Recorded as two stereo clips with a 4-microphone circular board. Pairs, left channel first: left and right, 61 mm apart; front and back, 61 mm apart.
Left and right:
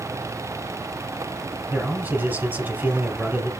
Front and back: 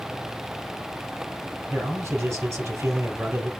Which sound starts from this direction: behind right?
A man speaking, at 1.7 s.